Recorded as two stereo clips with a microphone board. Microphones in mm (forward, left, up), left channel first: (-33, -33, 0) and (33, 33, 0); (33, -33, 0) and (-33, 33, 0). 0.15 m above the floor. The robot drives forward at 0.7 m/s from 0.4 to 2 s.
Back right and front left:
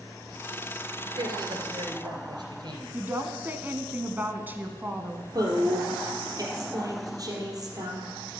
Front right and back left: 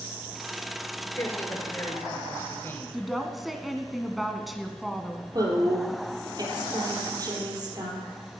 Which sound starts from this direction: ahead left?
A woman speaking, at 2.9 s.